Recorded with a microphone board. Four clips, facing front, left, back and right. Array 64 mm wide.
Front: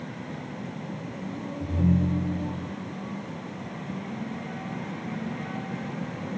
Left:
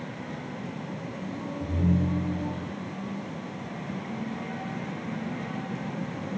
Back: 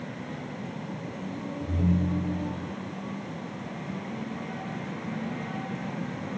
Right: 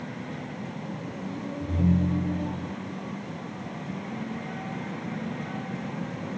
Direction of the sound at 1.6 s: 5° left.